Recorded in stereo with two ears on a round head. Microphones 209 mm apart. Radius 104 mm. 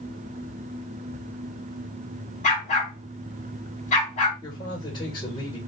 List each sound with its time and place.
2.4 s a dog barking: 30° left (ahead or behind), 2.5 m
4.4 s a man speaking: 20° left (ahead or behind), 2.5 m